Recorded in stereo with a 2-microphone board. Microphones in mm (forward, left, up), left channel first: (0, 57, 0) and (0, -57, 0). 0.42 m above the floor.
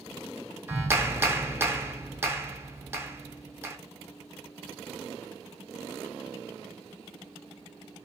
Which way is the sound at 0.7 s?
20° right (ahead or behind).